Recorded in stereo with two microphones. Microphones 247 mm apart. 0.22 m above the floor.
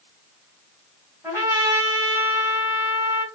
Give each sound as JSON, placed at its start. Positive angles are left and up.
{"t": 1.2, "sound": "a trumpet", "side_deg": -10, "distance_m": 1.3}